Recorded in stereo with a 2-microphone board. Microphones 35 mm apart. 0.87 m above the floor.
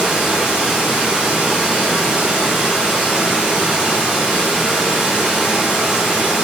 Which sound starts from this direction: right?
Running water, at 0.0 s.